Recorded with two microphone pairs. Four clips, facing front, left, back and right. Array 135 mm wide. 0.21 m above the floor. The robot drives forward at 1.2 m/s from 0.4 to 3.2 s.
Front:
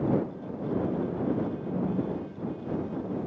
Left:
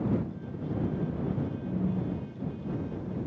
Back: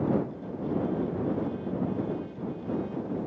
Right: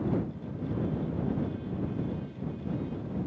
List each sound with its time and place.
1.6 s a phone buzzing: 160° left, 7.5 m; by 3.2 s 165° left, 9.5 m